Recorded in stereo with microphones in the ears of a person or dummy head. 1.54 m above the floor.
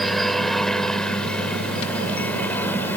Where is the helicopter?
5° left (ahead or behind); by 3.0 s 15° left (ahead or behind).